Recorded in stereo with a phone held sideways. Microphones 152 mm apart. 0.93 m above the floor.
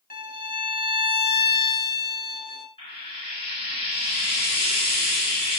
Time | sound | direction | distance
0.1 | a violin | 75° left (ahead or behind) | 1.6 m
2.8 | frying | 35° left (ahead or behind) | 6.5 m